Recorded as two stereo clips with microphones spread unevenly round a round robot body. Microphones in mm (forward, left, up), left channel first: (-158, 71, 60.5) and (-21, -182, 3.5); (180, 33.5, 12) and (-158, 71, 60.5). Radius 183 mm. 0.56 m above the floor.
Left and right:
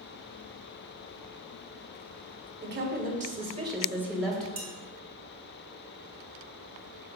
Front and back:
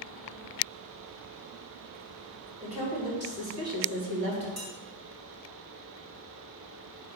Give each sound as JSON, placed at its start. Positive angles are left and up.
{"t": 2.6, "sound": "a woman speaking", "azimuth_deg": -110, "distance_m": 2.0}
{"t": 4.6, "sound": "dishes clattering", "azimuth_deg": -105, "distance_m": 2.5}